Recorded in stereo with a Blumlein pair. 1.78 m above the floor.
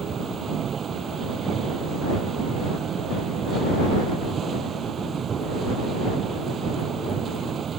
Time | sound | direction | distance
0.0 | a machine running | 25° right | ?